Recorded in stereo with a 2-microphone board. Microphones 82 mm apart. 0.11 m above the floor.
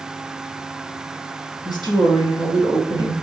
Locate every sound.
1.6 s a woman speaking: 50° left (ahead or behind), 2.5 m